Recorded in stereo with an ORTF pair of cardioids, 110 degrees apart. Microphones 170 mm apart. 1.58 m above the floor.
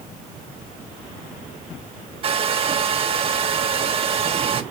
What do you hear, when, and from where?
2.2 s a hair dryer: 35° right, 1.5 m